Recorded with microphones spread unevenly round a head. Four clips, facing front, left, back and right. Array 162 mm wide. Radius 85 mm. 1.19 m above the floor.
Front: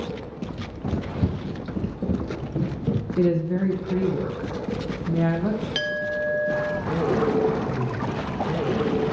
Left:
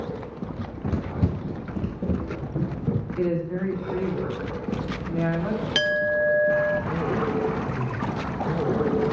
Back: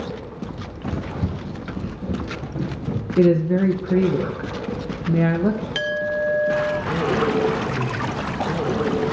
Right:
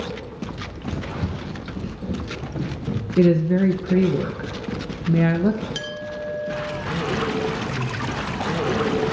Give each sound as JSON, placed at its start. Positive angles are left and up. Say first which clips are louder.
{"t": 0.6, "sound": "running footsteps", "louder": "left 1 dB, front 1 dB", "azimuth_deg": 135, "distance_m": 1.2}
{"t": 3.2, "sound": "a woman speaking", "louder": "right 11 dB, back 6 dB", "azimuth_deg": -120, "distance_m": 1.2}
{"t": 5.8, "sound": "a clink", "louder": "left 8 dB, back 4 dB", "azimuth_deg": 130, "distance_m": 0.7}